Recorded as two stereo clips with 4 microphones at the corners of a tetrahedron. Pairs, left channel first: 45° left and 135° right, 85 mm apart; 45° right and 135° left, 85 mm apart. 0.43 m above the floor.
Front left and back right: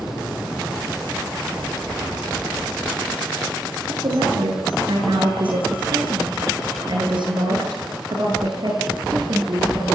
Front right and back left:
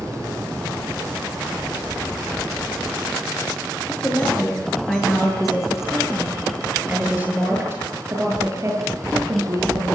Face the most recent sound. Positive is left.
turn(degrees=180)